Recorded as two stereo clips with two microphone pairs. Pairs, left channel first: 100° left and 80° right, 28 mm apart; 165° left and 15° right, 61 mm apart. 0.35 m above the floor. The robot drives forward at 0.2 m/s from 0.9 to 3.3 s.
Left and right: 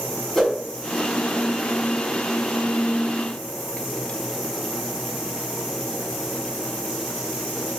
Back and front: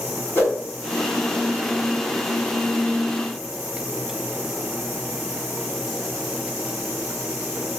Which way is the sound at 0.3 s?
175° left.